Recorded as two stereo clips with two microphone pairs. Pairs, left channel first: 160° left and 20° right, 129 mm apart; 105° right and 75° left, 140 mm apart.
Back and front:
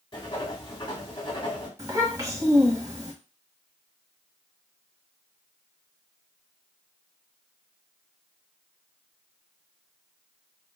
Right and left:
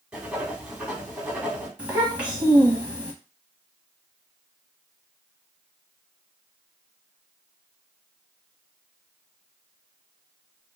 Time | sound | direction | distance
0.1 | writing | 160° left | 1.0 m
1.8 | a child speaking | 5° left | 1.1 m